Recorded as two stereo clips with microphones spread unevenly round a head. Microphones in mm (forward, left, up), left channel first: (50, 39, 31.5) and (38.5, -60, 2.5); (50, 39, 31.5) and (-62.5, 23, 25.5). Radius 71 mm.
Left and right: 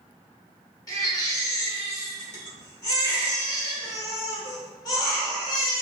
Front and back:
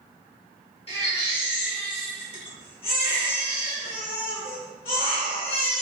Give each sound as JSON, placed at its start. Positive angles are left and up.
{"t": 0.9, "sound": "a baby crying", "azimuth_deg": 40, "distance_m": 1.6}